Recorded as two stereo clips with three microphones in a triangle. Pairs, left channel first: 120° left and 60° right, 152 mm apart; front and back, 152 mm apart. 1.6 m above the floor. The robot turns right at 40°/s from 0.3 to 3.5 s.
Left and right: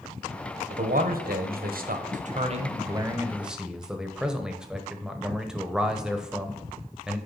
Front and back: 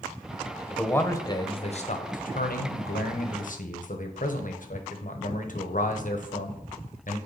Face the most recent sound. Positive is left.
turn(degrees=25)